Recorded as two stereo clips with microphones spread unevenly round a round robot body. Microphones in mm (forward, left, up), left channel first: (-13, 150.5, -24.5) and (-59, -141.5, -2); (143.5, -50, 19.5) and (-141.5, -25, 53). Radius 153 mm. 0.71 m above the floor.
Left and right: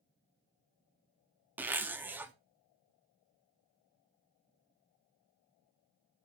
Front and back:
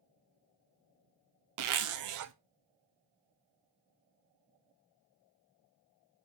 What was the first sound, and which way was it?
A zipper, 175° left.